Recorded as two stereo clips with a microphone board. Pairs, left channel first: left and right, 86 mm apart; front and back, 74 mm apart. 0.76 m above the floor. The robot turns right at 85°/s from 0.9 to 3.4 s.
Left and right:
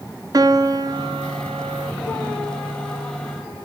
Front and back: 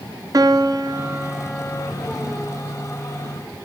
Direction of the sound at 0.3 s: 135° right.